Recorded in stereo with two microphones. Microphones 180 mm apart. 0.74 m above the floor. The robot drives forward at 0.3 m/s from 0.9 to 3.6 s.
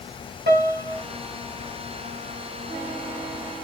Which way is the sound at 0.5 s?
70° right (ahead or behind).